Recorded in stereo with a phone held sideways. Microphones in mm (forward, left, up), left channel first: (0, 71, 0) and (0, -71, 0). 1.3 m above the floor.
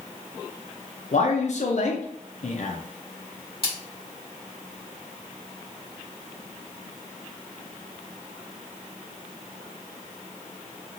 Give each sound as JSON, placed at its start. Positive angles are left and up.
{"t": 1.1, "sound": "a man speaking", "side_deg": 55, "distance_m": 0.5}
{"t": 3.6, "sound": "a splash", "side_deg": 40, "distance_m": 1.6}